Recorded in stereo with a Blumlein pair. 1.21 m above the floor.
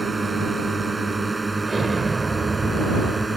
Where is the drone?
10° right.